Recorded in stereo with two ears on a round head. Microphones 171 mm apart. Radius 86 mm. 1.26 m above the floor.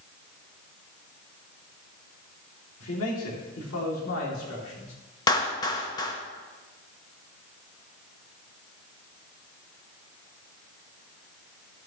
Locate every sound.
2.8 s a man speaking: 80° left, 2.5 m; by 5.0 s 75° left (ahead or behind), 3 m
5.3 s a clap: 20° left (ahead or behind), 1.1 m